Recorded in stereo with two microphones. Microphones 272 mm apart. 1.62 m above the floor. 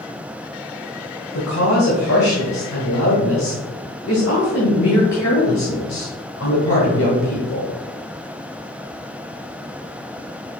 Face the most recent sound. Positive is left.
turn(degrees=80)